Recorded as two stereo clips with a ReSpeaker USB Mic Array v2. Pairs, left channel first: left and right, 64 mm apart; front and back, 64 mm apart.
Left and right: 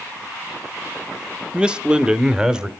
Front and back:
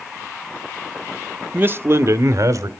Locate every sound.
1.5 s a man speaking: 150° right, 0.8 m; by 2.7 s 165° right, 1.3 m